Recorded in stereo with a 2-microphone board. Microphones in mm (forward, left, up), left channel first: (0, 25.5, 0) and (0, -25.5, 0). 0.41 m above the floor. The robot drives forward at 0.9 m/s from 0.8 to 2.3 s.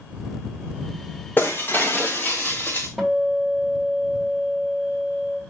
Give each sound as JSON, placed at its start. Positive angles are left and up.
{"t": 1.4, "sound": "breaking glass", "side_deg": 40, "distance_m": 3.0}
{"t": 3.0, "sound": "a guitar", "side_deg": 0, "distance_m": 2.5}